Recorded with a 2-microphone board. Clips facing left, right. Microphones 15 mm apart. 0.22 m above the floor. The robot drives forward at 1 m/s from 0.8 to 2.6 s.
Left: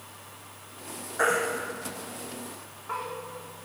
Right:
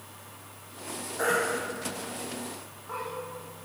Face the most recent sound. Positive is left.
turn(degrees=30)  # may be behind; listen again after turning